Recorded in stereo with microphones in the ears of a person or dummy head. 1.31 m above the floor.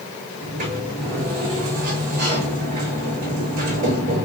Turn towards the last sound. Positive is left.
turn(degrees=-50)  # may be behind; listen again after turning